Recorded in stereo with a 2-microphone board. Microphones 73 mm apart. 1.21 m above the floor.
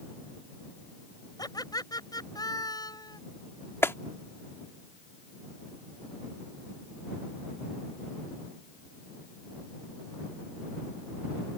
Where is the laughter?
65° left (ahead or behind).